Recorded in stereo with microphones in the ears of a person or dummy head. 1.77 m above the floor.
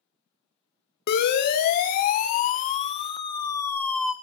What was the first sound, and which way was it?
A siren, 55° left (ahead or behind).